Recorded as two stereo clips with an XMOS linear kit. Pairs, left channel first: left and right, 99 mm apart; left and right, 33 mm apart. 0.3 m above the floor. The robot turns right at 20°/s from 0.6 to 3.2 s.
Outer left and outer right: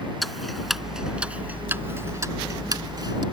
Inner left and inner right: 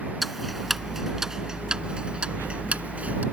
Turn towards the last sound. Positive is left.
turn(degrees=-50)  # may be behind; listen again after turning